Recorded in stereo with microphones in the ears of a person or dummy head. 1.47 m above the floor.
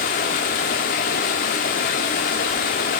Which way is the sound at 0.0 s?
35° left (ahead or behind).